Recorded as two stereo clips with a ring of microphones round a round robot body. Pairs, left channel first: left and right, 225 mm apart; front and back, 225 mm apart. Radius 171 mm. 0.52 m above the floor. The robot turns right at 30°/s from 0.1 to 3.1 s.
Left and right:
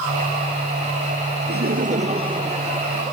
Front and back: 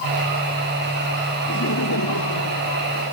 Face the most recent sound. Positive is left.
turn(degrees=0)